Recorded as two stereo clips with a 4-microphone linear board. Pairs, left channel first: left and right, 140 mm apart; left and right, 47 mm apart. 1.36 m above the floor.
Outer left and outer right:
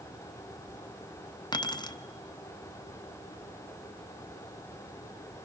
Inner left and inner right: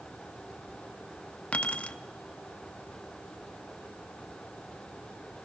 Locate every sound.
1.5 s keys jangling: 30° left (ahead or behind), 0.7 m